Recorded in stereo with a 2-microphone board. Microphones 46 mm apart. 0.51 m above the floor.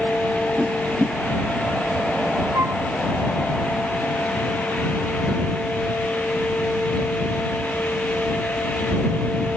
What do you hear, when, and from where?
0.6 s a whoosh: centre (ahead or behind)
2.5 s a flute: 80° right